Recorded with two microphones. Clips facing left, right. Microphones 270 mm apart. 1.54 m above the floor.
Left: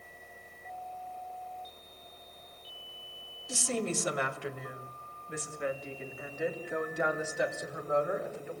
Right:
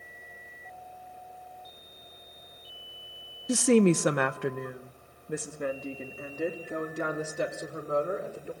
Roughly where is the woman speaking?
Right.